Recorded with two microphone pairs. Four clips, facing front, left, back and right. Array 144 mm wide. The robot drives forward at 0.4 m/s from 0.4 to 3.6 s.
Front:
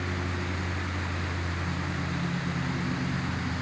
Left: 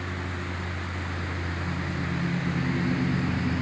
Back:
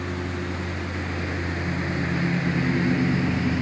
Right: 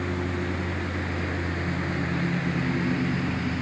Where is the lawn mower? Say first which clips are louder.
Right 6 dB, back 4 dB; 120° right; by 3.6 s 175° right.